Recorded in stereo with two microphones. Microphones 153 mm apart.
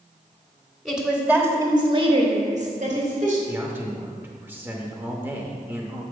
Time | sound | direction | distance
0.8 | a woman speaking | centre (ahead or behind) | 1.4 m
3.5 | a man speaking | 15° right (ahead or behind) | 0.8 m